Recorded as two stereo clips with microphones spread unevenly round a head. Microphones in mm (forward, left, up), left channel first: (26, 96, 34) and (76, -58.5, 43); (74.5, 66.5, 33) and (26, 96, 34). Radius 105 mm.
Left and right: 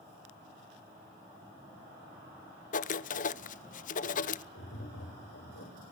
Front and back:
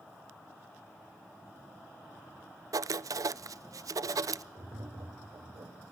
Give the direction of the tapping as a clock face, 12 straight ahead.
8 o'clock.